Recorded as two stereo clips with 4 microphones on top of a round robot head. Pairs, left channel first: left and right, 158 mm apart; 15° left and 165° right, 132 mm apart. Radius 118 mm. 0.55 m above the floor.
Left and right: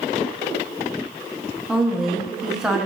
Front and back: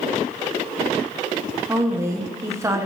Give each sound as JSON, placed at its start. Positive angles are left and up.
{"t": 1.7, "sound": "a woman speaking", "azimuth_deg": -170, "distance_m": 0.6}